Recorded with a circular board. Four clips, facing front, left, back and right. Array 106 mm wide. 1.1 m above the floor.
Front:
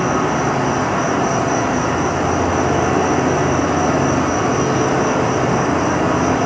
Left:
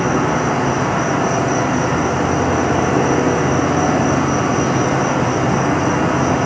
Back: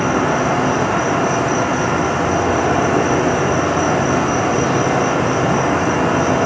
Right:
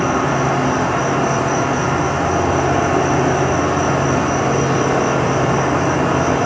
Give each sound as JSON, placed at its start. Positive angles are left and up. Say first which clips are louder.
{"t": 0.0, "sound": "an insect", "louder": "even, back 1 dB", "azimuth_deg": -165, "distance_m": 1.7}